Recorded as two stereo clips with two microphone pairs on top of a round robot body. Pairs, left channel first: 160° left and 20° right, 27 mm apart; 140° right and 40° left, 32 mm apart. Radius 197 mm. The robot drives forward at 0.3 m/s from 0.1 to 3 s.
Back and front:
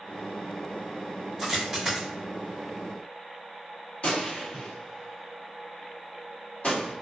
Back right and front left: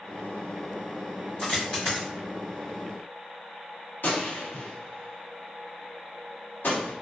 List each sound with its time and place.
1.4 s a dropped coin: 100° right, 0.7 m; by 2.1 s 120° right, 0.7 m
4.0 s a gunshot: 165° right, 1.0 m